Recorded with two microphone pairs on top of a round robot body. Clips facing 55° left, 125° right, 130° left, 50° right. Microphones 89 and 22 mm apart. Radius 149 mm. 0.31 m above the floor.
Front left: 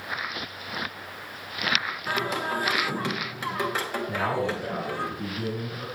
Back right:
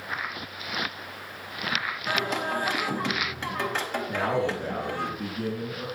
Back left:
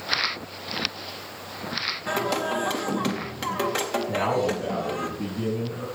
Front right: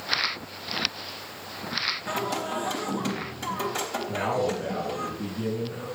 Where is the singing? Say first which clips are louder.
Even, back left 4 dB; 130° left, 2.5 m.